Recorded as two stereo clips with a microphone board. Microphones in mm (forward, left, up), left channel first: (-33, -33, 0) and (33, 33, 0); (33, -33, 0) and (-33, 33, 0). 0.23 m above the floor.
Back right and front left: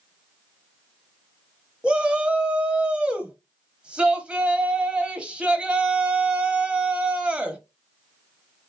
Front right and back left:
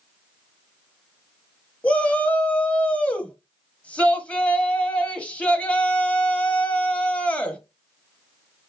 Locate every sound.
1.8 s a shout: 5° right, 0.9 m